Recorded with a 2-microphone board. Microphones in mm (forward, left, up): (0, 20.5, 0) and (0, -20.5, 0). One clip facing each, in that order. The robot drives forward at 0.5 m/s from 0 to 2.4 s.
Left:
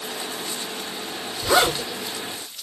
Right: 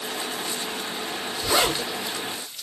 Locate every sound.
1.4 s a zipper: 60° left (ahead or behind), 5.5 m